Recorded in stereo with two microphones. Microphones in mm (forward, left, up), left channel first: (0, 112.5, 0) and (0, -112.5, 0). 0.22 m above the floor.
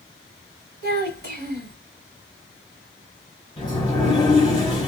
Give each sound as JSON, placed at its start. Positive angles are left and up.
{"t": 0.8, "sound": "a child speaking", "side_deg": -50, "distance_m": 1.6}
{"t": 3.6, "sound": "a sliding door", "side_deg": 20, "distance_m": 1.7}